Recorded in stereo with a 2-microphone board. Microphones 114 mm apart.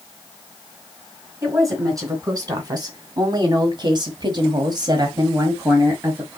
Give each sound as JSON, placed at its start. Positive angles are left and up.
{"t": 1.4, "sound": "a woman speaking", "side_deg": -30, "distance_m": 2.5}